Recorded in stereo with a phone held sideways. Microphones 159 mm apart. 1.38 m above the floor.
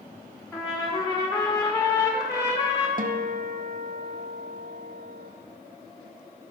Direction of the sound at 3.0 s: 60° right (ahead or behind).